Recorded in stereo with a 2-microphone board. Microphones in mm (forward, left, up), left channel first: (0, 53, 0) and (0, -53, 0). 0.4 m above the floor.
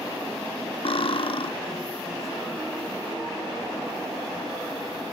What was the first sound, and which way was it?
Cutlery clinking, 55° left (ahead or behind).